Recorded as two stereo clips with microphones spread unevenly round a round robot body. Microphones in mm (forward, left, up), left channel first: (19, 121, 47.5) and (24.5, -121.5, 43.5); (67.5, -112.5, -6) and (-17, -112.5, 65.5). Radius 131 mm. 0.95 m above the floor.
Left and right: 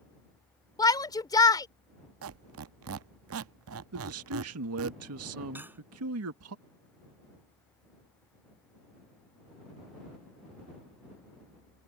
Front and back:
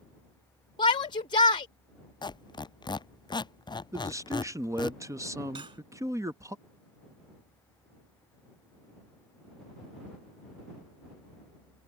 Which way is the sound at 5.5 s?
170° right.